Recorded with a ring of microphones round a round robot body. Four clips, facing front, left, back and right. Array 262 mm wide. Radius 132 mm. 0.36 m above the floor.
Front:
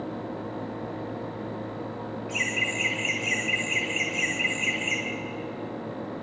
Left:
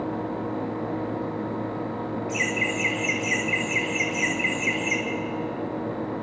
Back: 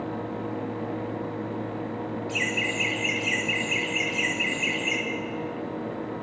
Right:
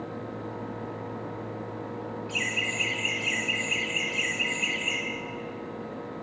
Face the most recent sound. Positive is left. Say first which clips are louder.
# left 6 dB, back 2 dB
turn(degrees=140)